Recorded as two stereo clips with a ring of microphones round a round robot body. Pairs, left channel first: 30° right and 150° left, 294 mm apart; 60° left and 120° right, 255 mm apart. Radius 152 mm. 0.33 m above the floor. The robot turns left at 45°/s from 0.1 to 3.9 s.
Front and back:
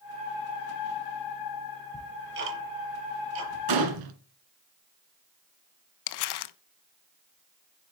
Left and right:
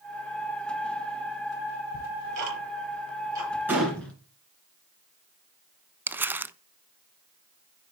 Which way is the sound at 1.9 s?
135° right.